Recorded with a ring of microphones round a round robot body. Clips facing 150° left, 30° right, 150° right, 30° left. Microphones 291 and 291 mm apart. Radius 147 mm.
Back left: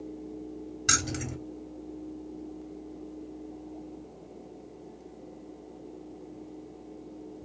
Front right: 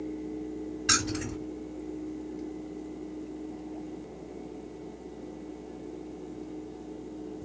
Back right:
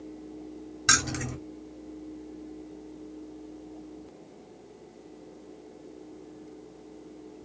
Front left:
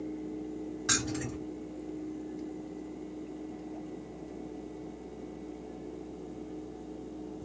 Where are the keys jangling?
165° left, 1.7 m.